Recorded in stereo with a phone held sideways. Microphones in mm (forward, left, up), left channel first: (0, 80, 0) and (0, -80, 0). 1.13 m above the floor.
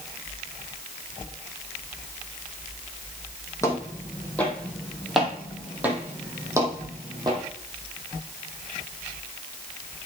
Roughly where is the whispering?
I don't hear whispering.